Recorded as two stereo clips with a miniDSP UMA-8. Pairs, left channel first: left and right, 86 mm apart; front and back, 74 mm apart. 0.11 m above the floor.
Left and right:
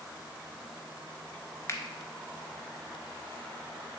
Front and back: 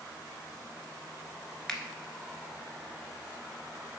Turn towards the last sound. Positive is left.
turn(degrees=70)